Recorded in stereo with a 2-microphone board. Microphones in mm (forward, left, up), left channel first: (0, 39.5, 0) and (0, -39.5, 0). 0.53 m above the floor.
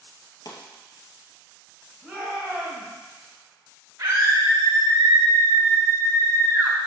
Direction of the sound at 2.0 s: 10° right (ahead or behind).